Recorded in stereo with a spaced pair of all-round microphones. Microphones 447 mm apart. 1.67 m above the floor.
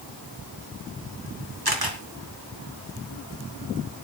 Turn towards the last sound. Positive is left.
turn(degrees=-50)  # may be behind; listen again after turning